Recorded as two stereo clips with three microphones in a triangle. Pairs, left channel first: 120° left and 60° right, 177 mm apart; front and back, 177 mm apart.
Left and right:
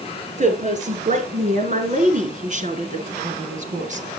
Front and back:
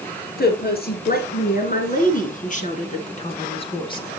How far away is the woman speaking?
About 3.5 m.